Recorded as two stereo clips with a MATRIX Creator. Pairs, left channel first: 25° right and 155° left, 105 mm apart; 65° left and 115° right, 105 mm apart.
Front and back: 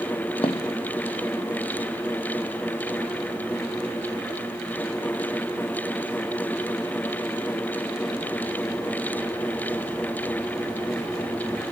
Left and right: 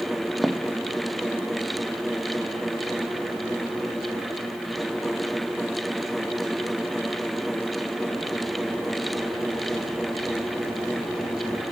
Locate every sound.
0.4 s footsteps: 25° right, 1.0 m; by 8.2 s 5° left, 11.5 m